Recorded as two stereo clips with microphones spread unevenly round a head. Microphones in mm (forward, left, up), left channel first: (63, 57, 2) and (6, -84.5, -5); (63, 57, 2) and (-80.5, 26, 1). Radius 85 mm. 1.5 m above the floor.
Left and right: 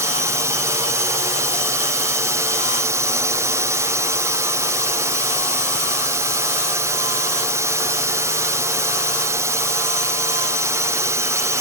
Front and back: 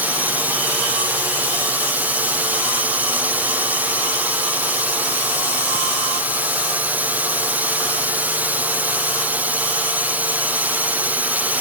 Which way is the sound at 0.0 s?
115° right.